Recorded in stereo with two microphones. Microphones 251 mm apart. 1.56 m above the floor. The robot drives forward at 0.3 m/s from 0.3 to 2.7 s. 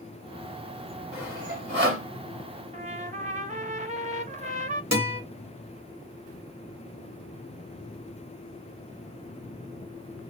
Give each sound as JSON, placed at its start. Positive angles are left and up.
{"t": 1.1, "sound": "sawing", "side_deg": -60, "distance_m": 3.0}
{"t": 2.7, "sound": "a trumpet", "side_deg": -30, "distance_m": 0.7}
{"t": 4.9, "sound": "a guitar", "side_deg": -60, "distance_m": 2.5}